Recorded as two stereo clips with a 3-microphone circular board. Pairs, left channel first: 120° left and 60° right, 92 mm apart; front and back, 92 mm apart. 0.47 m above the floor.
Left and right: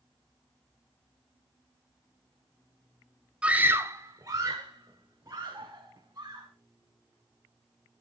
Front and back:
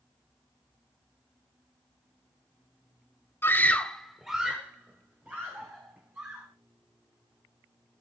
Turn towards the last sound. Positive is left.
turn(degrees=-110)